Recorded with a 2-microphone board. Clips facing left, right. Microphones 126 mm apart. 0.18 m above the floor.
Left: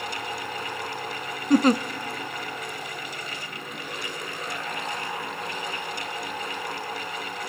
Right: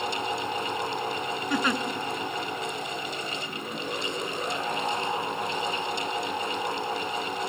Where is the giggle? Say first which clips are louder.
Left 10 dB; 40° left (ahead or behind), 0.7 m.